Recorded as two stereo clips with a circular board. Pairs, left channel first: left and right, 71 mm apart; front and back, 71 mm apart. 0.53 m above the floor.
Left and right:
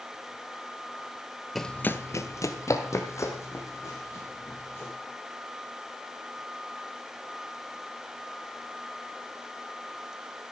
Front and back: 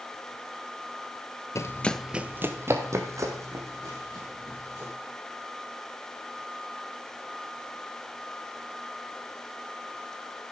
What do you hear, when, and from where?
1.6 s running footsteps: straight ahead, 0.6 m; by 4.9 s 140° left, 3.5 m